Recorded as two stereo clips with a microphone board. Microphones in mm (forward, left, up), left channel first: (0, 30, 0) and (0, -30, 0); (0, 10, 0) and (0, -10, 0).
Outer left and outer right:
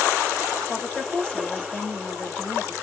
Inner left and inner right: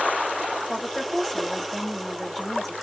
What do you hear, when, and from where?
0.7 s a woman speaking: 20° left (ahead or behind), 1.2 m